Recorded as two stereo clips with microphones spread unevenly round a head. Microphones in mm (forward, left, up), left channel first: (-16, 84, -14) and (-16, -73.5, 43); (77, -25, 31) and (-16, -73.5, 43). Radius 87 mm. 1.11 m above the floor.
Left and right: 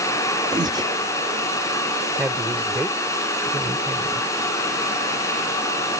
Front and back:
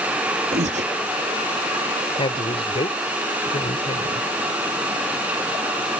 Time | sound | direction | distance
0.5 | breathing | 160° right | ?
2.2 | a woman speaking | 15° right | ?